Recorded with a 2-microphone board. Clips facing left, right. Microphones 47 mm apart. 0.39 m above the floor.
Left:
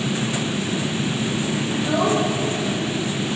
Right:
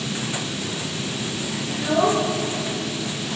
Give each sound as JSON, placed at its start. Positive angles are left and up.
{"t": 1.7, "sound": "a child speaking", "side_deg": -30, "distance_m": 5.0}